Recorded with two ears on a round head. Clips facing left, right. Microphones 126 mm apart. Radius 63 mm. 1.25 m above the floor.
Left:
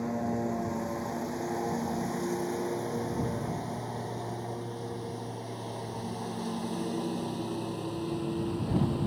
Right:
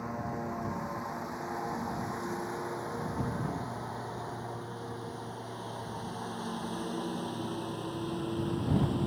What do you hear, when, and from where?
0.0 s a lawn mower: 30° left (ahead or behind); by 9.1 s 5° left (ahead or behind)